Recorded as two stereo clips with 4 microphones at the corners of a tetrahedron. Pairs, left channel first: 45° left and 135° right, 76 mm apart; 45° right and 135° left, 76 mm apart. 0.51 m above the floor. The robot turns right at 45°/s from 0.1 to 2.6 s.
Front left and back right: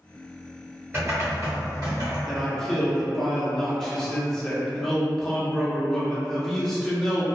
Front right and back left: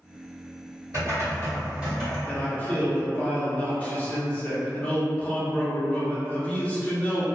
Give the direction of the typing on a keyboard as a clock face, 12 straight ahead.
6 o'clock.